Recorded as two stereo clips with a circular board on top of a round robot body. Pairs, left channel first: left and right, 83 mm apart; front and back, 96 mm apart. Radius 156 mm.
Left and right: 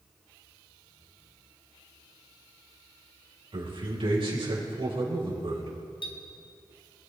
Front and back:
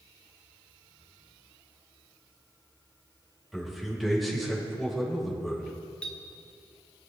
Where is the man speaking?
90° right, 3.5 m.